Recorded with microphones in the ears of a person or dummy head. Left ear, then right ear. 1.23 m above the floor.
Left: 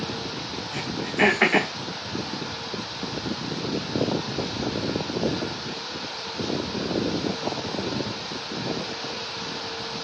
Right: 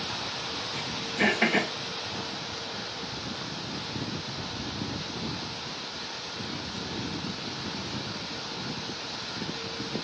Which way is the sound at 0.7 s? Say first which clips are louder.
Left 7 dB; 55° left (ahead or behind).